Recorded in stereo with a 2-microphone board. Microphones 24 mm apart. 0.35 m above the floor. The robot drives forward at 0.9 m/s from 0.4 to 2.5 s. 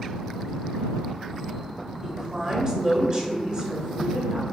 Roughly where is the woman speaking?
Right.